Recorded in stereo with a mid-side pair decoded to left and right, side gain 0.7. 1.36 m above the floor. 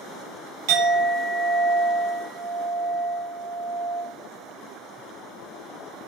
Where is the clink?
65° right, 0.8 m.